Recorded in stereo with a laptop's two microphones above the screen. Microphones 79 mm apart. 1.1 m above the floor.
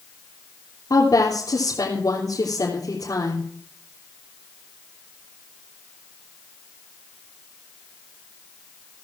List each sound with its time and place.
0.9 s a woman speaking: 50° left (ahead or behind), 3.5 m